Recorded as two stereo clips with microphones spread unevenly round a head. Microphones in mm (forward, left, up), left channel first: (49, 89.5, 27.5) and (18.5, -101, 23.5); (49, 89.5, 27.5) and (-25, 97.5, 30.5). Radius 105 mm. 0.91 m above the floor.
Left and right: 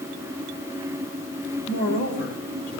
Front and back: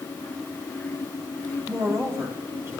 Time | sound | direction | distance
1.7 | a woman speaking | 135° left | 3.5 m